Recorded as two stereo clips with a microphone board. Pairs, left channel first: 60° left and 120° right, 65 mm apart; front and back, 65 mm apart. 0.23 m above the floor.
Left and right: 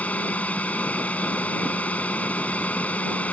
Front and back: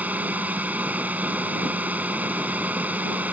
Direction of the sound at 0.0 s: 120° left.